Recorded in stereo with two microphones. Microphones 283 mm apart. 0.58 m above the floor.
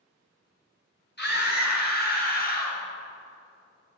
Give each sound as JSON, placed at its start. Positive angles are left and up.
{"t": 1.2, "sound": "a scream", "side_deg": 35, "distance_m": 5.0}